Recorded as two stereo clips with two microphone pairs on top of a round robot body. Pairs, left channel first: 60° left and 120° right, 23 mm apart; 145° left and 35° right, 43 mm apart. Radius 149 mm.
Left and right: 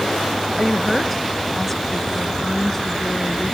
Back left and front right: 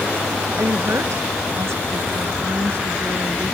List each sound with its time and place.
0.6 s a woman speaking: 40° right; by 3.5 s 15° right